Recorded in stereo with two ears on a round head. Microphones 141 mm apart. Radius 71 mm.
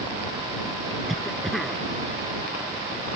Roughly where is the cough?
Centre.